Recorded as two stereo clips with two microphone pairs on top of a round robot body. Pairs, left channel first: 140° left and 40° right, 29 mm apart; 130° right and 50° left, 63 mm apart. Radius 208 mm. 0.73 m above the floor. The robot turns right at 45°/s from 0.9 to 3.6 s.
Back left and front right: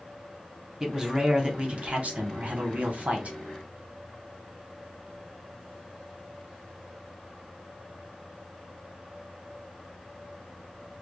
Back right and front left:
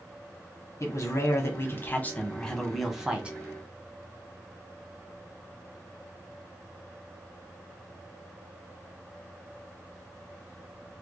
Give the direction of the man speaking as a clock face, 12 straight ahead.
4 o'clock.